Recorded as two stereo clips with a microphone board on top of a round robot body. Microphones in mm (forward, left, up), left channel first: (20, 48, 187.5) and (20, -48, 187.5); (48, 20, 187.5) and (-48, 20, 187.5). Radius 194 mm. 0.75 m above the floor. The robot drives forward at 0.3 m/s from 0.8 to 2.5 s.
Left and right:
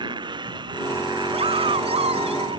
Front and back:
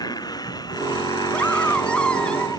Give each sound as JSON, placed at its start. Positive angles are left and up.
{"t": 0.0, "sound": "a motorcycle", "azimuth_deg": -50}
{"t": 1.3, "sound": "a scream", "azimuth_deg": -80}